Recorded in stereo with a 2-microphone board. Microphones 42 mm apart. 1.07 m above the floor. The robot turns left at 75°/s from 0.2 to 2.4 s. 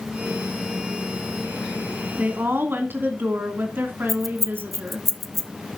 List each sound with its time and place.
2.2 s a woman speaking: 40° right (ahead or behind), 2.5 m; by 5.1 s 55° right (ahead or behind), 2.5 m
4.1 s keys jangling: 5° left (ahead or behind), 0.8 m